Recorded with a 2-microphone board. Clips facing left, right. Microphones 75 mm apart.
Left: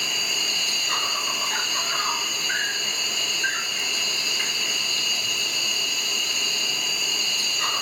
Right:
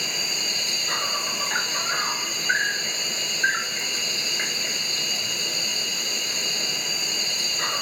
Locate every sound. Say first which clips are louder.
0.0 s an insect: left 2 dB; 35° right (ahead or behind), 2 m